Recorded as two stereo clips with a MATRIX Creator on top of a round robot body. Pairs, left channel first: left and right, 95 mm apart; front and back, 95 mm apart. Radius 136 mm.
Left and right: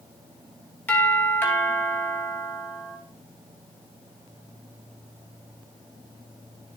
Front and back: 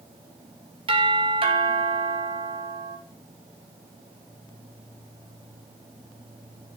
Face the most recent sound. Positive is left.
turn(degrees=160)